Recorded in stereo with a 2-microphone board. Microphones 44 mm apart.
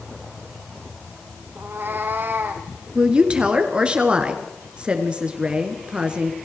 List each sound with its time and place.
1.6 s a cat meowing: 50° right (ahead or behind), 1.7 m; by 2.7 s 55° right (ahead or behind), 3 m
3.0 s a woman speaking: 20° right (ahead or behind), 2.5 m